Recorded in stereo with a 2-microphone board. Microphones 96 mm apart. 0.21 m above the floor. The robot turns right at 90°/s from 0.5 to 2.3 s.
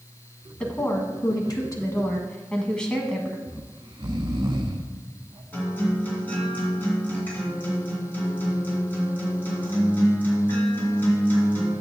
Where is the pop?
I don't hear a pop.